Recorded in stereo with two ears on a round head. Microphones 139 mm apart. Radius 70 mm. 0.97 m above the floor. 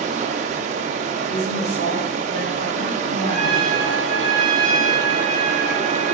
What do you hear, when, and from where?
0.0 s running water: 45° right (ahead or behind), 0.7 m
1.2 s a woman speaking: 70° left (ahead or behind), 3 m
3.3 s a trumpet: 35° left (ahead or behind), 2.5 m